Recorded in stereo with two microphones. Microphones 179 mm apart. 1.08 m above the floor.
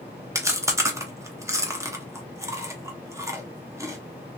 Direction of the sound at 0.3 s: 15° right (ahead or behind).